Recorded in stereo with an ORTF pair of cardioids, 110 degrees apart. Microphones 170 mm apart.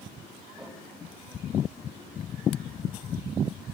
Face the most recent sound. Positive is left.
turn(degrees=0)